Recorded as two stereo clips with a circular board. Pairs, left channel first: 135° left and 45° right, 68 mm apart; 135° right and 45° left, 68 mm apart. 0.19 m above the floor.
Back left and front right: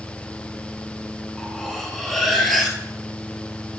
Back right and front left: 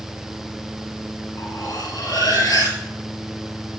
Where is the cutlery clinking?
140° right, 2.5 m.